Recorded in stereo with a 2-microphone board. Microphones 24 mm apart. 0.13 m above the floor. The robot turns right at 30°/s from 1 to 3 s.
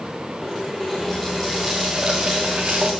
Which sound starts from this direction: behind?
A running tap, at 0.4 s.